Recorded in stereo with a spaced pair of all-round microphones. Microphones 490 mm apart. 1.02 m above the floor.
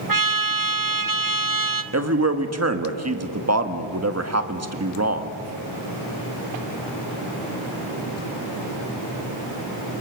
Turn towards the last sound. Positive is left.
turn(degrees=-30)  # may be behind; listen again after turning